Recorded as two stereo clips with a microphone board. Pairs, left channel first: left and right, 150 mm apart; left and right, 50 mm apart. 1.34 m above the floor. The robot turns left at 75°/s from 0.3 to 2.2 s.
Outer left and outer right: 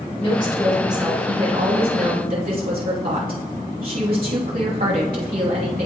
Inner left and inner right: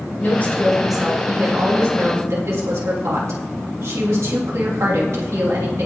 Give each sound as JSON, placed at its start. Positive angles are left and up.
{"t": 0.2, "sound": "a woman speaking", "azimuth_deg": 40, "distance_m": 2.5}